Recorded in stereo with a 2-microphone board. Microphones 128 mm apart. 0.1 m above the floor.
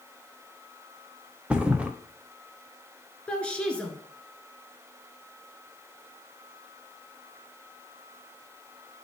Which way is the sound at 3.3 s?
10° left (ahead or behind).